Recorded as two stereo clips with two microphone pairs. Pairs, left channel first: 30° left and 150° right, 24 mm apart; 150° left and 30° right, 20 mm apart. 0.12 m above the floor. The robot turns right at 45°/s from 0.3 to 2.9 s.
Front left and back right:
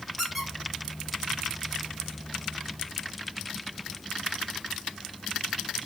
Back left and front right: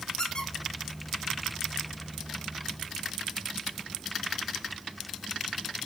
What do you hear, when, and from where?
0.2 s a squeak: 115° left, 2 m; by 1.7 s straight behind, 2 m